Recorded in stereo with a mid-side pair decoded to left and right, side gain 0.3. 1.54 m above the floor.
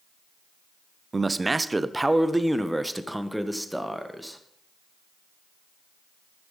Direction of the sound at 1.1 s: 40° right.